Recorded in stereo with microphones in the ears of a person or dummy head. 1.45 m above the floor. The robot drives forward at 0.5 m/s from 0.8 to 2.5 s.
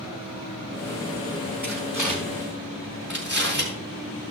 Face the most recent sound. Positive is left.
turn(degrees=-5)  # may be behind; listen again after turning